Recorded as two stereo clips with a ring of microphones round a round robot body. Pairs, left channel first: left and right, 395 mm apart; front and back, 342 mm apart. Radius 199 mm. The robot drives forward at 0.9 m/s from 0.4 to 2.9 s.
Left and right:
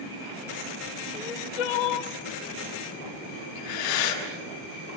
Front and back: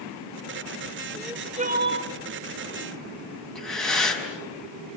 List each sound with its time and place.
1.1 s crying: 85° left, 1.0 m; by 2.1 s 130° left, 1.3 m
3.5 s breathing: 90° left, 6 m